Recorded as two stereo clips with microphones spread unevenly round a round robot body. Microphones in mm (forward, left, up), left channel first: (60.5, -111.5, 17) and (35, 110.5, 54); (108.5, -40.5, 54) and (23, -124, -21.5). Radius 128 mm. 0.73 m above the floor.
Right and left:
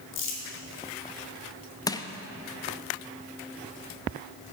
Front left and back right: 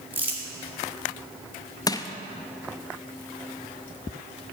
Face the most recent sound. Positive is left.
turn(degrees=-55)